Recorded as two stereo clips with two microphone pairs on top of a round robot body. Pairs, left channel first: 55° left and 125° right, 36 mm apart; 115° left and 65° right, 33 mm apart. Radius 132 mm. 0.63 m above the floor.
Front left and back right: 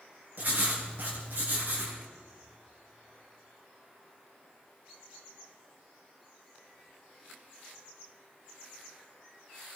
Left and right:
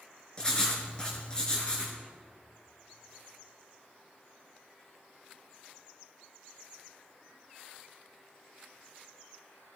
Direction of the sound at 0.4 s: 175° right.